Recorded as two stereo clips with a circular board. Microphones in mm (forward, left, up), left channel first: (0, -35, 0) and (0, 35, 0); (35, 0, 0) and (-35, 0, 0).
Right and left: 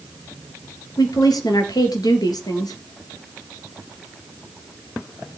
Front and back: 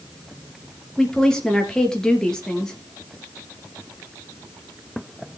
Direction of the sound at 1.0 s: 80° right.